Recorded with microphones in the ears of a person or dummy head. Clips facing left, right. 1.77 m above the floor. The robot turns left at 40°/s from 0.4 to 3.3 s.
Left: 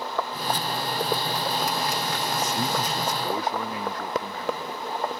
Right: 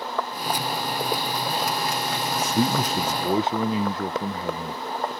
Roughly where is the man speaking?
Behind right.